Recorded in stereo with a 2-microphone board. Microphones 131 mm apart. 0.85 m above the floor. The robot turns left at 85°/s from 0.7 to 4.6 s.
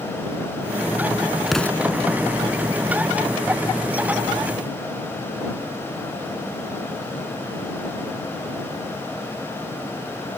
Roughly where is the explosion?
Behind.